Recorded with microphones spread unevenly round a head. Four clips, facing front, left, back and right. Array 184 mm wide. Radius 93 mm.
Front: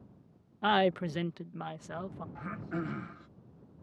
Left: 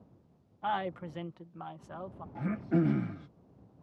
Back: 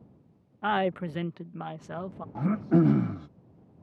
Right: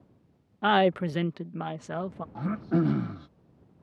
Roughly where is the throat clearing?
Behind.